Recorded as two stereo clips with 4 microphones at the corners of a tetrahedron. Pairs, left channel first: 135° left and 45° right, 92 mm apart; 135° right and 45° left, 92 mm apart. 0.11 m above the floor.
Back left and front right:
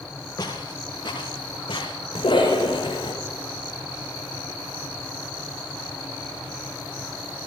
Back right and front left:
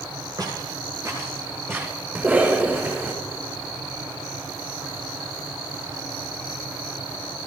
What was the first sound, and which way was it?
Footsteps, 90° left.